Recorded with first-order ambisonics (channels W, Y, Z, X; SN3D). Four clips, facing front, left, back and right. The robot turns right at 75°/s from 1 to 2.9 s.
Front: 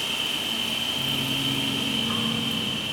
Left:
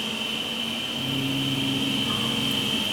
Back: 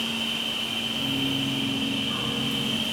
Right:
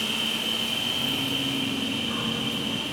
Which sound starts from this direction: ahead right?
An insect, at 0.0 s.